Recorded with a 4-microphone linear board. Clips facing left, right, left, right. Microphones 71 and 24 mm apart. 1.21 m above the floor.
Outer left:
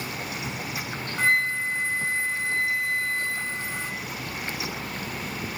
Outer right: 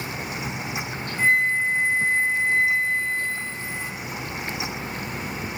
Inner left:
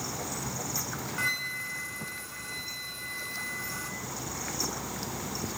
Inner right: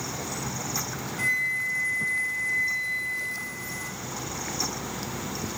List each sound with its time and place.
1.2 s a flute: 65° left (ahead or behind), 3.5 m